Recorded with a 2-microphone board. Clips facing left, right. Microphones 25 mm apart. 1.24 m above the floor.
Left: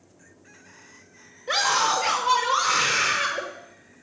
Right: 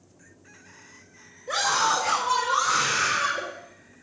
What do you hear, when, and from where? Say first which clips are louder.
1.5 s a scream: left 1 dB; 50° left (ahead or behind), 6.5 m